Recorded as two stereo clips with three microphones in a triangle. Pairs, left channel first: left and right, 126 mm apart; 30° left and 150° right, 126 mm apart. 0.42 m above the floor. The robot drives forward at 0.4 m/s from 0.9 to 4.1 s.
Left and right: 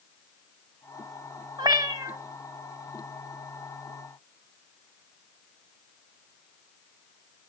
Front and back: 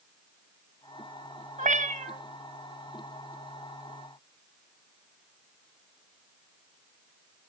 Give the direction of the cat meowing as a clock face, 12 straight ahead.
5 o'clock.